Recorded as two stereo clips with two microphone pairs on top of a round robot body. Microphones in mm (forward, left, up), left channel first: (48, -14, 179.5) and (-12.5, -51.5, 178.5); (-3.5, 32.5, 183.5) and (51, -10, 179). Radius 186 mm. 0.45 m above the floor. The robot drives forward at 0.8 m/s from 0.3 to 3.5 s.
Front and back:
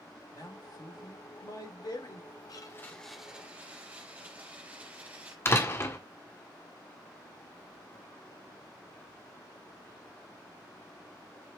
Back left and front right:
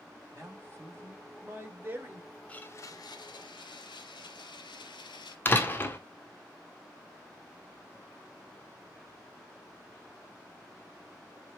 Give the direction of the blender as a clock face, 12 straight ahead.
10 o'clock.